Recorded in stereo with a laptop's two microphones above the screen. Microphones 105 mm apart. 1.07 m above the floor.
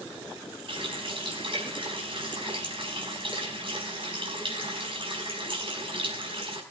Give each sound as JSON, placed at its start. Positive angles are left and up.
{"t": 0.7, "sound": "a running tap", "side_deg": -55, "distance_m": 5.0}